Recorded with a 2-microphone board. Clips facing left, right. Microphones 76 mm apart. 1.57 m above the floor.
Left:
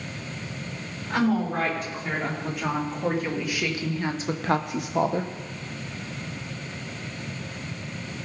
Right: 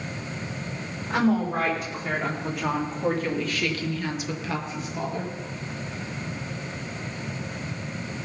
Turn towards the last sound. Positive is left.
turn(degrees=60)  # may be behind; listen again after turning